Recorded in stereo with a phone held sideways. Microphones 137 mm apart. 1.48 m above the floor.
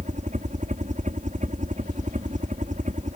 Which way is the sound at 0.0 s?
65° right (ahead or behind).